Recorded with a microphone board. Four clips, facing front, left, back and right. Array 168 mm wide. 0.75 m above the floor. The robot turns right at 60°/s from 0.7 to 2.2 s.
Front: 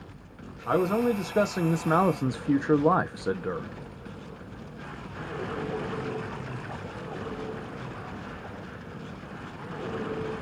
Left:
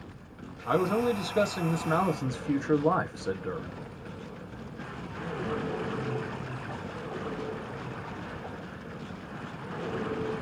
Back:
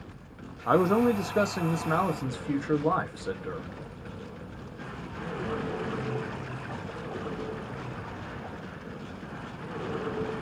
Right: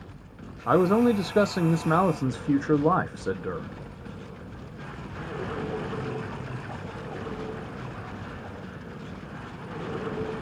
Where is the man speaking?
120° right, 0.6 m; by 3.8 s 30° right, 0.6 m.